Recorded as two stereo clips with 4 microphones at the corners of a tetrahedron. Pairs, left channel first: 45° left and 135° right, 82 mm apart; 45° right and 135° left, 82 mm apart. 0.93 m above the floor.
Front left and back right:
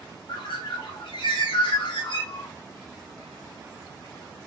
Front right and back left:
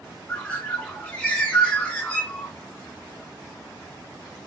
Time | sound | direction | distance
0.3 | a bird | 30° left | 0.7 m